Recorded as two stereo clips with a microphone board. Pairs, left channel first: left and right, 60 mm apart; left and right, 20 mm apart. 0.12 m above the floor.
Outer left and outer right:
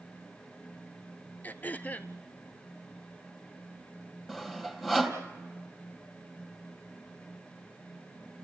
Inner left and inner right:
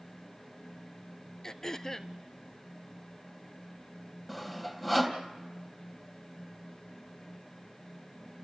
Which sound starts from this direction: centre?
Sawing, at 4.3 s.